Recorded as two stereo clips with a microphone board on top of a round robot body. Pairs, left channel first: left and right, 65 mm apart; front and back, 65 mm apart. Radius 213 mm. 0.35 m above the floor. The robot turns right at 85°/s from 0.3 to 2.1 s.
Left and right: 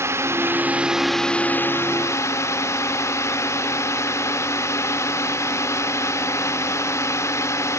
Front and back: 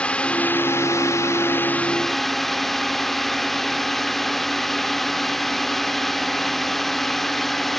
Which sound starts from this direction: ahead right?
A drone, at 0.0 s.